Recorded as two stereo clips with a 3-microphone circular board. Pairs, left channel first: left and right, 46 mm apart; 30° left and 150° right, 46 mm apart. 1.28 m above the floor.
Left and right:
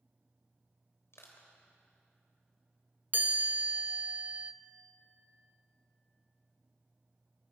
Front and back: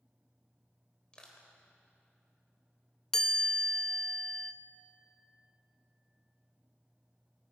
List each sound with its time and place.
1.1 s crushing: 100° left, 3 m
3.1 s a chime: 50° right, 1.0 m